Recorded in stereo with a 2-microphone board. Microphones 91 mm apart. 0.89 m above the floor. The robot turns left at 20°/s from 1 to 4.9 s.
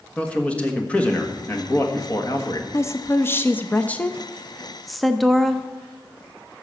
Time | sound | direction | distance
0.2 | a man speaking | 160° left | 1.5 m
2.7 | a woman speaking | 45° left | 0.5 m